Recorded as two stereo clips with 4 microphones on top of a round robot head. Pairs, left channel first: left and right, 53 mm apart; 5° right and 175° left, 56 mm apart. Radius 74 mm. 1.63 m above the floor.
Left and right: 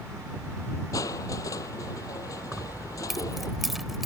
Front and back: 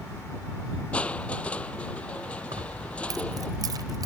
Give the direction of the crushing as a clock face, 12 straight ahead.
10 o'clock.